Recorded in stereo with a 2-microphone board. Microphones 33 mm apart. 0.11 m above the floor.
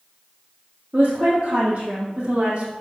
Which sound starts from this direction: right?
A woman speaking, at 0.9 s.